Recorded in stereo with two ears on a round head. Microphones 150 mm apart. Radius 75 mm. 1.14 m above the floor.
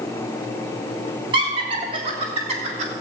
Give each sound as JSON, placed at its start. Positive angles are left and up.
{"t": 1.3, "sound": "laughter", "side_deg": -30, "distance_m": 3.5}